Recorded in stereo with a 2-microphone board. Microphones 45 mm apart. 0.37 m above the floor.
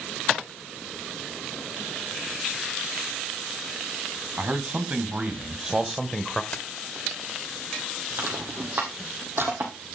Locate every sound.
4.4 s a man speaking: 40° right (ahead or behind), 2.5 m; by 6.4 s 10° left (ahead or behind), 1.1 m
6.5 s keys jangling: 35° left (ahead or behind), 0.8 m
8.2 s crushing: 60° right (ahead or behind), 4 m